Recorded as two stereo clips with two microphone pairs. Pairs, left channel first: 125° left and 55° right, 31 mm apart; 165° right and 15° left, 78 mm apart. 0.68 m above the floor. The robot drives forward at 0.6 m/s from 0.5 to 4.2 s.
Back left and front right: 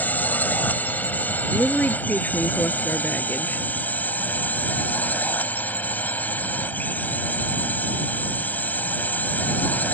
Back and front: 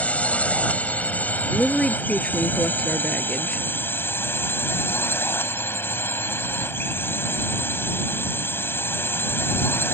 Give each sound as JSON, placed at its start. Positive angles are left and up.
{"t": 0.0, "sound": "a drone", "azimuth_deg": 120}
{"t": 1.5, "sound": "a woman speaking", "azimuth_deg": 115}